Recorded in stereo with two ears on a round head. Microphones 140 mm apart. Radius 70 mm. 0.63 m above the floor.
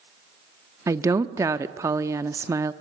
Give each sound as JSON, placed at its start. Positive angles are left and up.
{"t": 0.9, "sound": "a woman speaking", "side_deg": -20, "distance_m": 0.7}